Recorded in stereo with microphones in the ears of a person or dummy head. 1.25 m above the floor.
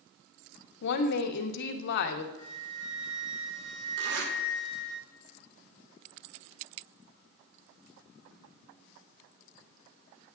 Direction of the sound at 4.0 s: 60° right (ahead or behind).